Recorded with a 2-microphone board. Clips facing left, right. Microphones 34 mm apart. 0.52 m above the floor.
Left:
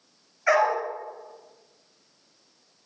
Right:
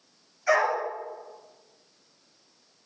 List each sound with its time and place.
0.5 s a dog barking: 40° left (ahead or behind), 4 m